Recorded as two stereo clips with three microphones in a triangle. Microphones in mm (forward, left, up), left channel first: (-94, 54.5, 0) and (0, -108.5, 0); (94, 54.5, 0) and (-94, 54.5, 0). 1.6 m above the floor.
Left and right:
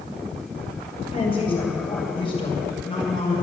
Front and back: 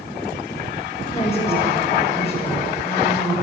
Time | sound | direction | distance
1.1 | a woman speaking | 60° left | 8 m